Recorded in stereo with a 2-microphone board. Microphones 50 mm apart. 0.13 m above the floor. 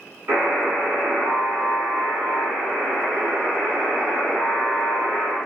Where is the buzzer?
60° right (ahead or behind), 1.5 m.